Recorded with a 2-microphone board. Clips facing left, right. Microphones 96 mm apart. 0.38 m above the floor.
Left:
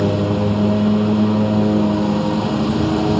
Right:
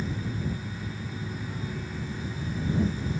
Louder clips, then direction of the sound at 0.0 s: Left 16 dB; 85° left.